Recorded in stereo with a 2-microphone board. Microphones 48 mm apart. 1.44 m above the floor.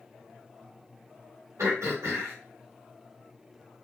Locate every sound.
1.6 s throat clearing: 85° right, 1.8 m